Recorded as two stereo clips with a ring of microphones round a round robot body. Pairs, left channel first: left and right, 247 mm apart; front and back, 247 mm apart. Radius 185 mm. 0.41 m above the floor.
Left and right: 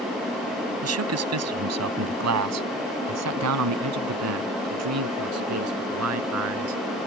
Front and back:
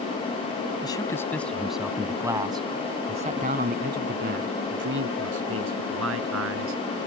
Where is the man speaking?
75° right; by 6.8 s 135° right.